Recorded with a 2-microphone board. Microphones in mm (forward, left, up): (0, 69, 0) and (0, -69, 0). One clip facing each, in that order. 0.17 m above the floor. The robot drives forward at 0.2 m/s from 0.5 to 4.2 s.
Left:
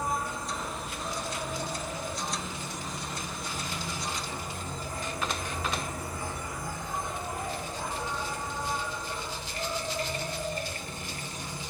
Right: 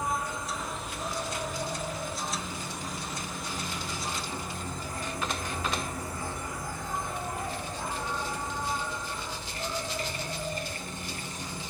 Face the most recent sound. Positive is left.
turn(degrees=20)  # may be behind; listen again after turning